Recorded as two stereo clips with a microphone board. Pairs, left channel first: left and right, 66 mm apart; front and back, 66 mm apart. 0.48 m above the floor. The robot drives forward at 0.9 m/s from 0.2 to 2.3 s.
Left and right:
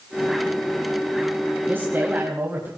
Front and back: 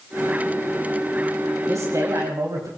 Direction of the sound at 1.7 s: 145° right.